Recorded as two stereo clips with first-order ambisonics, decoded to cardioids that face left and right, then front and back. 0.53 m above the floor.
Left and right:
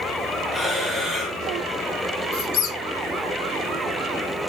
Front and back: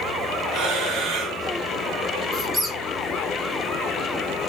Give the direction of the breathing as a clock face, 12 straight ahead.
6 o'clock.